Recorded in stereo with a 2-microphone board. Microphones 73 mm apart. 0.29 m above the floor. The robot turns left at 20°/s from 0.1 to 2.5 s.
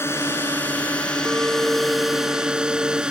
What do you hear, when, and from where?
0.0 s a drone: 35° left; by 3.1 s 10° right
1.2 s a clink: 15° right (ahead or behind); by 3.0 s 10° left (ahead or behind)